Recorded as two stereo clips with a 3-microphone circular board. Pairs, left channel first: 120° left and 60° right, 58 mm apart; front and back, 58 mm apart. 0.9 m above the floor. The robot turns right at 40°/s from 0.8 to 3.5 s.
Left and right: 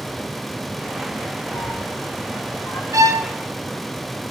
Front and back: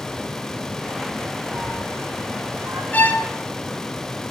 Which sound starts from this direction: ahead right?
A violin, at 2.9 s.